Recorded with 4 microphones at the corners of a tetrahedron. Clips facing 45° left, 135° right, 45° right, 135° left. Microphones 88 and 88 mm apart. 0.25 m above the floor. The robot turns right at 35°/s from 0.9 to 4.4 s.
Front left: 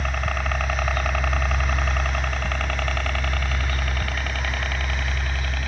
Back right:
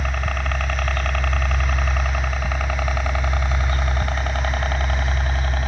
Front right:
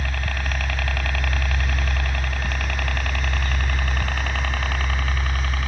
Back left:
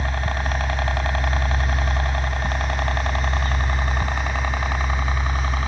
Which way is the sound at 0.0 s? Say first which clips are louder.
Even, back left 4 dB; 140° left.